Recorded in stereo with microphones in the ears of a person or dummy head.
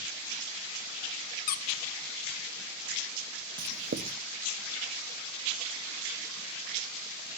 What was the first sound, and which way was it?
A squeak, 45° left (ahead or behind).